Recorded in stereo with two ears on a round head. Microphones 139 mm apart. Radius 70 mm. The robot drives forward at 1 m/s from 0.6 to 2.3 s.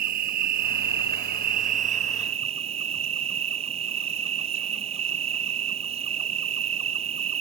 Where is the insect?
60° right (ahead or behind); by 7.4 s 45° right (ahead or behind).